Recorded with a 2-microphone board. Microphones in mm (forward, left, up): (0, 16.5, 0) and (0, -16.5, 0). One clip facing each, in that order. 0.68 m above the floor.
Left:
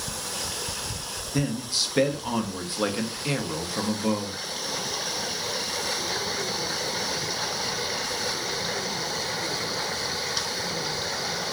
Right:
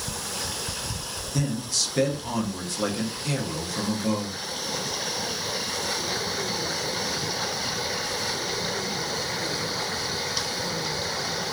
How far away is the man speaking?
About 0.5 m.